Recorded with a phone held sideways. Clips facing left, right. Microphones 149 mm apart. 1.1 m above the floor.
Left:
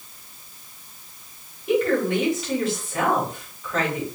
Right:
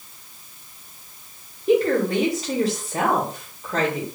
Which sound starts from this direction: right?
A woman speaking, at 1.7 s.